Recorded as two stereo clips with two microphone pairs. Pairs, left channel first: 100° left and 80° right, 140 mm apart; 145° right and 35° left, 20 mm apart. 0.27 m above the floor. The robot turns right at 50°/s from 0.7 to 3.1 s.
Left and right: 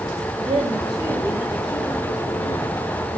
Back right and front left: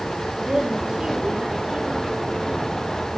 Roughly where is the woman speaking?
Ahead right.